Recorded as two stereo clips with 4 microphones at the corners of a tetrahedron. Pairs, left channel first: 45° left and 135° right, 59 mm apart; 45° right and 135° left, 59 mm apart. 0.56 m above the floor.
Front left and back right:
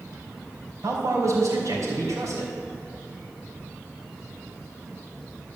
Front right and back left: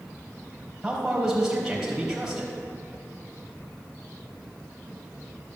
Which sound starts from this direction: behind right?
A man speaking, at 0.8 s.